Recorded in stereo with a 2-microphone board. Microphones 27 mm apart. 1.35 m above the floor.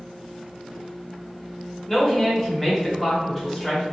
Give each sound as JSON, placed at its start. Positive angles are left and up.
{"t": 1.9, "sound": "a woman speaking", "side_deg": 5, "distance_m": 1.0}